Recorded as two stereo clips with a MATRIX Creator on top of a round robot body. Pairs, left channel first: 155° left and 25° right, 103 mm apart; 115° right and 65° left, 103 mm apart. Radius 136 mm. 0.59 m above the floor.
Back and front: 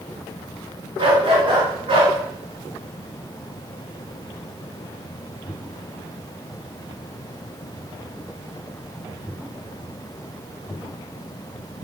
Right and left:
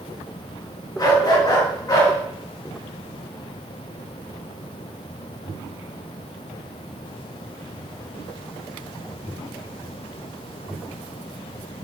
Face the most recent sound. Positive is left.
turn(degrees=-55)